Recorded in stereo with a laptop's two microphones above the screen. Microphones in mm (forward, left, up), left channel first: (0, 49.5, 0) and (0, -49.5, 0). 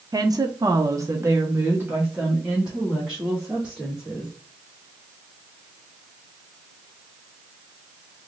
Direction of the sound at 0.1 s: 40° right (ahead or behind).